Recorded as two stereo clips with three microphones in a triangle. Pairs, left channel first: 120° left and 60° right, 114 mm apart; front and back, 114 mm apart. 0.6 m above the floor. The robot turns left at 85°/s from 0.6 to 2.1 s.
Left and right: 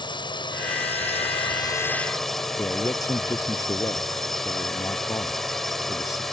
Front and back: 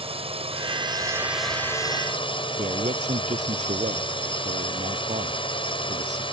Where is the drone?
160° left; by 6.3 s 35° left.